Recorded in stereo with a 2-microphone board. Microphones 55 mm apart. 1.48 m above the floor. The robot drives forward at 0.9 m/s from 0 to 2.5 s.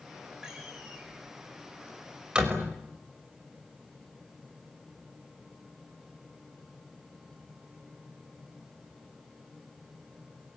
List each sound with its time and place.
0.4 s a door slam: 10° right (ahead or behind), 7 m; by 2.8 s 15° right (ahead or behind), 5.5 m